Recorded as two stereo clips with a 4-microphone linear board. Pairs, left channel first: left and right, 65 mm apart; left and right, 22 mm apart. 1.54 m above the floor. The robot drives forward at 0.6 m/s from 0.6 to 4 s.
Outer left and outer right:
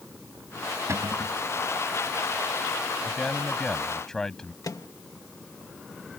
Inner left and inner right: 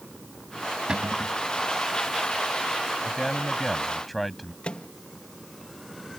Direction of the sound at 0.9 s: 40° right (ahead or behind).